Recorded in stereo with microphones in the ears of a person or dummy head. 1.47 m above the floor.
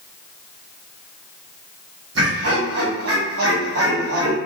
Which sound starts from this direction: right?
Laughter, at 2.1 s.